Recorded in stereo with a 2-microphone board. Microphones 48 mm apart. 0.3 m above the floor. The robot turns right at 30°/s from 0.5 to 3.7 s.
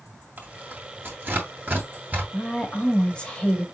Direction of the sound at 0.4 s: 40° right (ahead or behind).